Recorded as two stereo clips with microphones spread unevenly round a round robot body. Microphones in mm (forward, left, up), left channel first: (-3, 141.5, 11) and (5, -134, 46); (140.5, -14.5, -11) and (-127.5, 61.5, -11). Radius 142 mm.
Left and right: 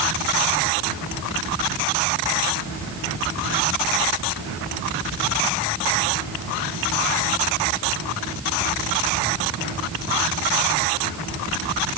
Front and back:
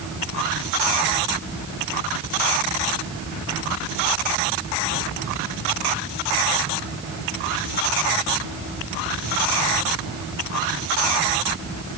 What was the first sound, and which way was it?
Only background noise.